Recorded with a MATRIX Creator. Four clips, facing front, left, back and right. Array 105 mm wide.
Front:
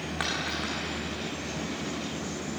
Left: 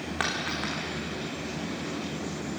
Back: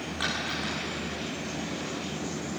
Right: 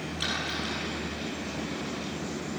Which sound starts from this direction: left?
A dropped coin, at 0.2 s.